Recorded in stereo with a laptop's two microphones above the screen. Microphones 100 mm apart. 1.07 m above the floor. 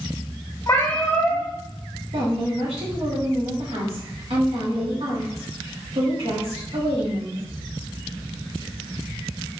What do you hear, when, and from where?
0.7 s a cat meowing: 30° left (ahead or behind), 1.3 m
2.1 s a woman speaking: 80° right, 1.7 m